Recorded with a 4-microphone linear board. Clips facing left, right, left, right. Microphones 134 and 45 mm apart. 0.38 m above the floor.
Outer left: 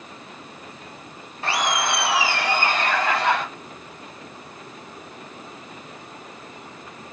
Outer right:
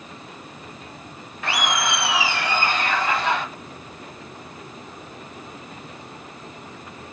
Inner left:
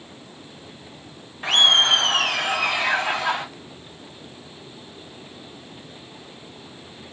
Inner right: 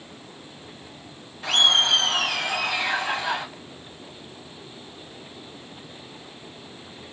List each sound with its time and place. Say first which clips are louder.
1.4 s laughter: outer left 1 dB, inner left 3 dB; 30° left (ahead or behind), 1.1 m; by 3.4 s 60° left (ahead or behind), 1.5 m